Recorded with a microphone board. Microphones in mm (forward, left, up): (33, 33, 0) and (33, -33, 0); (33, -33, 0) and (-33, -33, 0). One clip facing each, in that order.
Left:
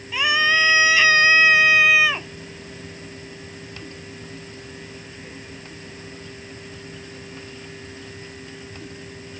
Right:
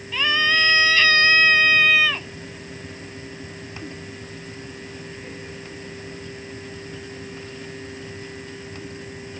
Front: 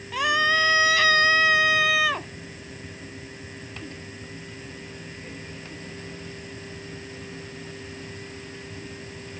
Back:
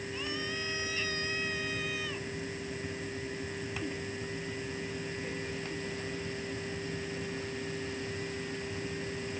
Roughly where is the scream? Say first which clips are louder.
Left 1 dB, front 18 dB; ahead.